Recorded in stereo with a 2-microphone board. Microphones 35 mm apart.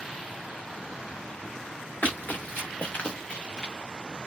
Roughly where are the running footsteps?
Left.